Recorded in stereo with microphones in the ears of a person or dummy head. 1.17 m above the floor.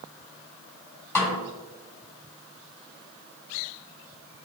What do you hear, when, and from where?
1.1 s a snare drum: 15° left (ahead or behind), 4 m